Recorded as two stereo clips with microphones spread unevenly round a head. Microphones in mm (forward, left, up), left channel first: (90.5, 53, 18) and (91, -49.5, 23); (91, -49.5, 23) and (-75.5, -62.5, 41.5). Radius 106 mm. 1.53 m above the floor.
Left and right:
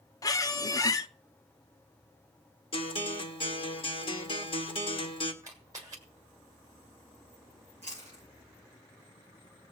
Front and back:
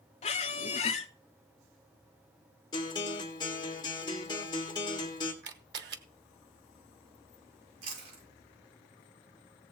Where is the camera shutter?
165° right, 1.2 m.